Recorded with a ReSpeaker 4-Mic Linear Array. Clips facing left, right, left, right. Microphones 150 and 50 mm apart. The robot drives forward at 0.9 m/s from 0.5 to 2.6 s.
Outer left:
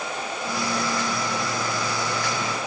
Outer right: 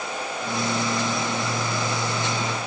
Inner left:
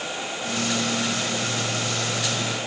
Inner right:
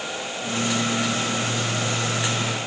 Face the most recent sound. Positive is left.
No sound to turn to.